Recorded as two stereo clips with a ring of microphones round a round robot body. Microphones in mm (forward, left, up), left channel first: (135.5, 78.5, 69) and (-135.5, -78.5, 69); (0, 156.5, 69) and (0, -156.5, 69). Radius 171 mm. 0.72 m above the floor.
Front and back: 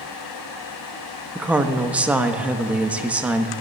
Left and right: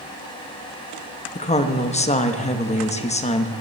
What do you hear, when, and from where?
1.4 s a woman speaking: 130° left, 0.9 m